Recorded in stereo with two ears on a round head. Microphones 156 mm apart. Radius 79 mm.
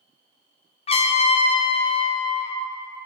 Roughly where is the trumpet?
Left.